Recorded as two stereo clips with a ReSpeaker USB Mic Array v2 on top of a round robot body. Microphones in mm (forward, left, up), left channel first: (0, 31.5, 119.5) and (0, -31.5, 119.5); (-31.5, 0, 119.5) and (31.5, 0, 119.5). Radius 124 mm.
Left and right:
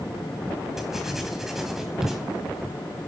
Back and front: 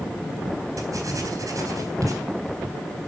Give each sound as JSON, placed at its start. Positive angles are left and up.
{"t": 0.8, "sound": "writing", "azimuth_deg": -5, "distance_m": 3.0}